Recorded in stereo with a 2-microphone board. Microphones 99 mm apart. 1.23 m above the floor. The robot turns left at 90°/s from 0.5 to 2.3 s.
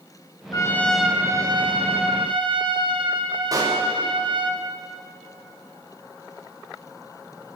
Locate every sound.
0.5 s a trumpet: 40° left, 3.5 m; by 4.5 s 120° right, 3.5 m
3.5 s a pop: 40° right (ahead or behind), 5.5 m